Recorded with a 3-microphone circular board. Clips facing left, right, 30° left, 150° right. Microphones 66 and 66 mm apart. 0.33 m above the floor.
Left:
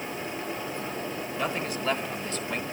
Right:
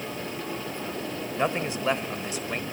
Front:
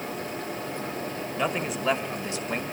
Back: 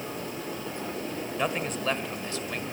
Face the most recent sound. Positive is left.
turn(degrees=-15)